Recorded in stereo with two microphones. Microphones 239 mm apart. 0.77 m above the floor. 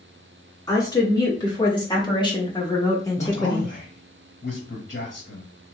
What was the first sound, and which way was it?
A woman speaking, 15° left (ahead or behind).